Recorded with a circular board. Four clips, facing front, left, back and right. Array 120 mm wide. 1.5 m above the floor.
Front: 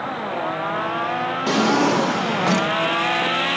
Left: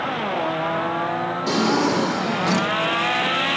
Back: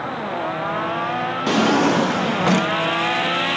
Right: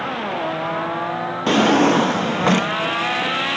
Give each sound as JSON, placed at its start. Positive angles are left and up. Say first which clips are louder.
{"t": 1.5, "sound": "a drawer", "louder": "right 6 dB, back 1 dB", "azimuth_deg": -100, "distance_m": 0.9}